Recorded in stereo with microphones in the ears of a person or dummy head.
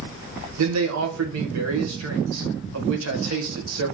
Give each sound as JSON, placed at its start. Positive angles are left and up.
{"t": 0.6, "sound": "a man speaking", "side_deg": -75, "distance_m": 1.1}